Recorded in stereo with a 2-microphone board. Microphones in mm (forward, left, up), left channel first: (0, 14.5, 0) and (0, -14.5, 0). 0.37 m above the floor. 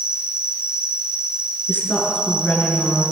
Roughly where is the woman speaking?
Left.